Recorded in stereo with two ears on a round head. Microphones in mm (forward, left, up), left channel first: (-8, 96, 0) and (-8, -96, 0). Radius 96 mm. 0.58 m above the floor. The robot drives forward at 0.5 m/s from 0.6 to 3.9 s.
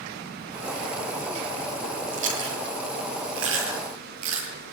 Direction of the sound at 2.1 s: 60° right (ahead or behind).